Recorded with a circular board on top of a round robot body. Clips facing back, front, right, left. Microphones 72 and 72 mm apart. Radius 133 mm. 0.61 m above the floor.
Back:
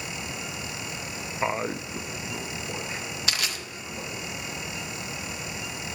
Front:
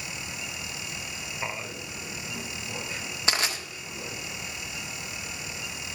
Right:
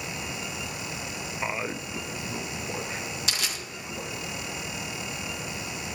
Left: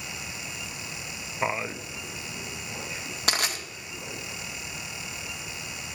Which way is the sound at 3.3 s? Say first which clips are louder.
Front 4 dB, left 8 dB; 55° left.